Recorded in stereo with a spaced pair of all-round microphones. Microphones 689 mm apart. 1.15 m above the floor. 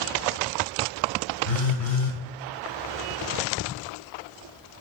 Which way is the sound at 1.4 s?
55° left (ahead or behind).